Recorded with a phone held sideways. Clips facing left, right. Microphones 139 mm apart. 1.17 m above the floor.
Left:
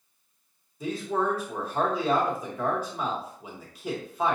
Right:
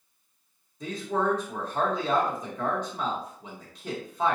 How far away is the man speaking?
About 1.4 m.